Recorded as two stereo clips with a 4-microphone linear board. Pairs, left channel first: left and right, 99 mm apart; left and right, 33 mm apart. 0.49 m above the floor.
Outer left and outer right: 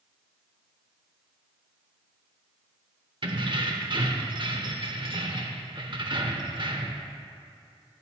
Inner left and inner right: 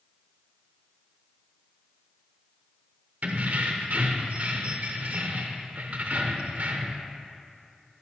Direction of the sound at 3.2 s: 55° right (ahead or behind).